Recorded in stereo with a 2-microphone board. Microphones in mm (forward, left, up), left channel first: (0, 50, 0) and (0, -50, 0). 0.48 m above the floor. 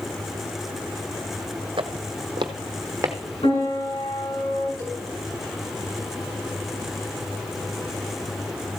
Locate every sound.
1.8 s footsteps: 65° right (ahead or behind), 1.1 m; by 3.2 s 30° right (ahead or behind), 1.5 m
3.4 s a piano: 75° left (ahead or behind), 5 m
4.8 s a cowbell: 35° left (ahead or behind), 5 m